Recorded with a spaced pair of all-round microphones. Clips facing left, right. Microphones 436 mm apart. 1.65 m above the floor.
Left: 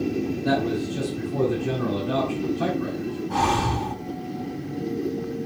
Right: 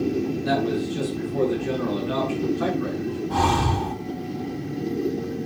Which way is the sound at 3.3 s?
60° right (ahead or behind).